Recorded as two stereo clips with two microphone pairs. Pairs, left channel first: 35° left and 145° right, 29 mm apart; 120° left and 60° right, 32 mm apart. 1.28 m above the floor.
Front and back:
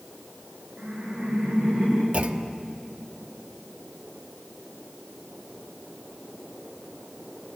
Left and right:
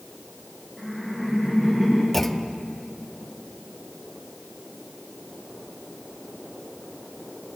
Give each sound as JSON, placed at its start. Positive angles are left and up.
{"t": 0.8, "sound": "laughter", "azimuth_deg": -155, "distance_m": 9.5}
{"t": 2.1, "sound": "a clunk", "azimuth_deg": -165, "distance_m": 0.9}